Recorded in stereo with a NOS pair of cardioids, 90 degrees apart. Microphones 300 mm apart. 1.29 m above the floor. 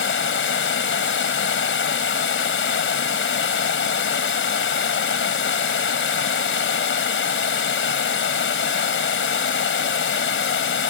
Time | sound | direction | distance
0.0 | running water | 45° left | ?